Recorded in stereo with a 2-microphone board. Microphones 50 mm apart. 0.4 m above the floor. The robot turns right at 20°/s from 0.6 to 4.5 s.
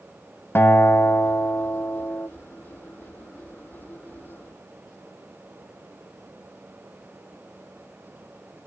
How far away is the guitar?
About 2 m.